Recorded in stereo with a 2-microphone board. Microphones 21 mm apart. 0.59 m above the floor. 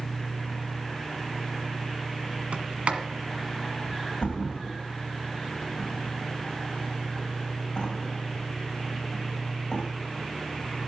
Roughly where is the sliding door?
Right.